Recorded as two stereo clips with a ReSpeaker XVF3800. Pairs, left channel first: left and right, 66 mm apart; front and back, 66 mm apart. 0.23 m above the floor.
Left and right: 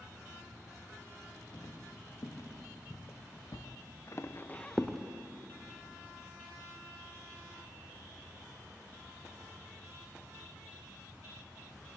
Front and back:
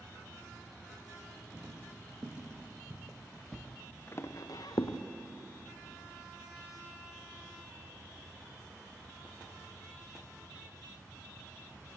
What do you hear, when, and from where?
1.5 s footsteps: 120° left, 4 m; by 5.0 s 5° left, 1.8 m